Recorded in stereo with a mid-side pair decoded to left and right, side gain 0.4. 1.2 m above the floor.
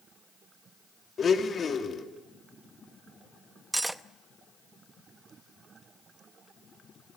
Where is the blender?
50° left, 2.5 m.